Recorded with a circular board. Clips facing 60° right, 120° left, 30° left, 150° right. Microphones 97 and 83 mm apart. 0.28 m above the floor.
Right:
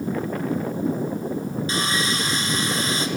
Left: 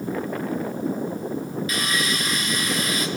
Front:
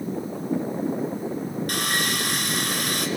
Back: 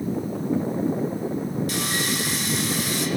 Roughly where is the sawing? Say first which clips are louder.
Right 2 dB, even; ahead.